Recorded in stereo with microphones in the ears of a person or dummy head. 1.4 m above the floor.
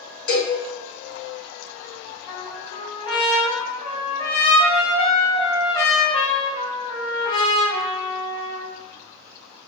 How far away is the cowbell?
About 2.0 m.